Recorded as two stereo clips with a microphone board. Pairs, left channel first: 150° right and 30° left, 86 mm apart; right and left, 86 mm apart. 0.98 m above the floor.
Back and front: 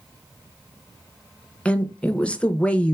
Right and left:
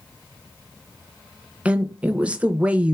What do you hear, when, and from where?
1.6 s a woman speaking: 150° left, 0.6 m